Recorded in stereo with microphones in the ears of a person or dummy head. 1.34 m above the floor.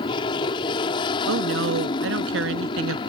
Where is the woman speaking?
90° right.